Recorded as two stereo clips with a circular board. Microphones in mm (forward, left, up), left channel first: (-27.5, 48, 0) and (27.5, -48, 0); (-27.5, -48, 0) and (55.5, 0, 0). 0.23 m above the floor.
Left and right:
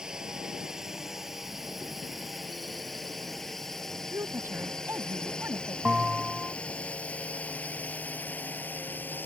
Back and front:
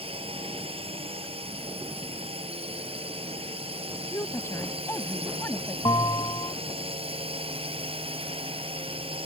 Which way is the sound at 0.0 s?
25° left.